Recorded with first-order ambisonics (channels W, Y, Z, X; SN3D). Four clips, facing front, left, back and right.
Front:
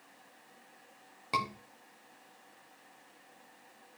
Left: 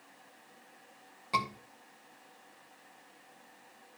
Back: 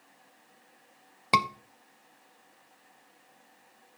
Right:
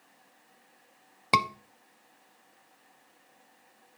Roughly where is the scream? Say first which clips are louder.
Right 7 dB, back 8 dB; behind right.